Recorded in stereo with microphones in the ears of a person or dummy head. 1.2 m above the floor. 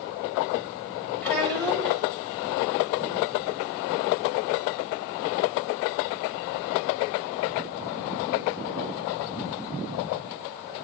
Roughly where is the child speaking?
Centre.